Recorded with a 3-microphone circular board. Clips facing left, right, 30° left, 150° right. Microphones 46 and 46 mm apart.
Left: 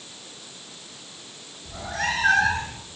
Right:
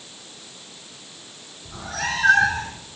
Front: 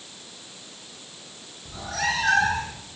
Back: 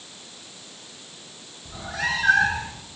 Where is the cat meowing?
75° right, 7 m.